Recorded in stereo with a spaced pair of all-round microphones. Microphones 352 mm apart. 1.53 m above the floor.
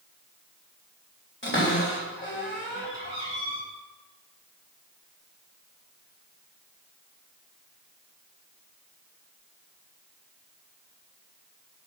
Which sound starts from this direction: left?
A cupboard door, at 1.4 s.